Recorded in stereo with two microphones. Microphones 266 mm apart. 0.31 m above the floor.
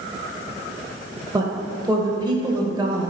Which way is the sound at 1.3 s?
15° right (ahead or behind).